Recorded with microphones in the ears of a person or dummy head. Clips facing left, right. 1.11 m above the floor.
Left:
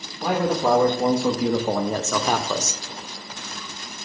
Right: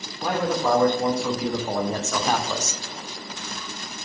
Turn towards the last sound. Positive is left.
turn(degrees=80)